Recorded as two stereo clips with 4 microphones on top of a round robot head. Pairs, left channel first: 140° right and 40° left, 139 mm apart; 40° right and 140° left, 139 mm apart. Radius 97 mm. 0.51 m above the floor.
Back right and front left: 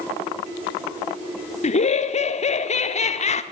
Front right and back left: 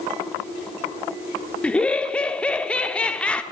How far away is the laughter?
About 1.0 m.